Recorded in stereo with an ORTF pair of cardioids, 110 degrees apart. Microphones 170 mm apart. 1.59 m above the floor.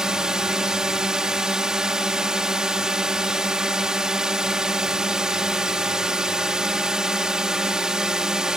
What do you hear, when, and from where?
0.0 s a drone: 5° right